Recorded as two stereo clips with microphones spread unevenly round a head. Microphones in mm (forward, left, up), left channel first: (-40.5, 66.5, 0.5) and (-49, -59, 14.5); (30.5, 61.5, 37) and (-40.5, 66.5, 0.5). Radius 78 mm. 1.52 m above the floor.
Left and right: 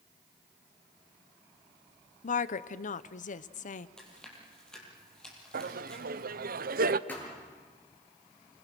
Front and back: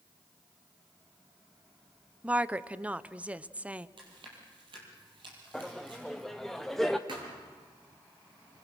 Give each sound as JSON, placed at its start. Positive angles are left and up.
{"t": 2.2, "sound": "a woman speaking", "azimuth_deg": 105, "distance_m": 0.9}
{"t": 4.0, "sound": "chewing", "azimuth_deg": 170, "distance_m": 7.0}
{"t": 5.5, "sound": "laughter", "azimuth_deg": -95, "distance_m": 0.8}
{"t": 7.1, "sound": "a thud", "azimuth_deg": 165, "distance_m": 8.5}